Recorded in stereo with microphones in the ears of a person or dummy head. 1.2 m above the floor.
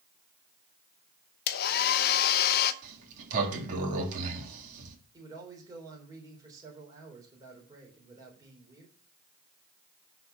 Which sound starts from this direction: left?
A hair dryer, at 1.5 s.